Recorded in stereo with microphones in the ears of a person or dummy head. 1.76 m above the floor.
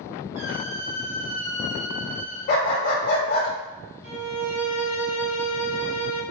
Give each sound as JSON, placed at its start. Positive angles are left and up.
{"t": 0.3, "sound": "a squeak", "side_deg": -40, "distance_m": 2.5}
{"t": 2.5, "sound": "a dog barking", "side_deg": 45, "distance_m": 2.5}
{"t": 4.0, "sound": "a violin", "side_deg": -35, "distance_m": 2.0}